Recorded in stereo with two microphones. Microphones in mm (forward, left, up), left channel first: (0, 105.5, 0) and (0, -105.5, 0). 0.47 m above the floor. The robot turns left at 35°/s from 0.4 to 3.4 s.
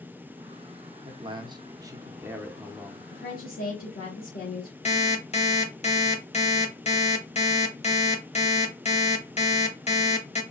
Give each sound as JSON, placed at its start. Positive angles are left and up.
{"t": 1.1, "sound": "a man speaking", "side_deg": -25, "distance_m": 0.7}
{"t": 3.1, "sound": "a woman speaking", "side_deg": 50, "distance_m": 1.8}
{"t": 4.8, "sound": "an alarm clock", "side_deg": 30, "distance_m": 0.9}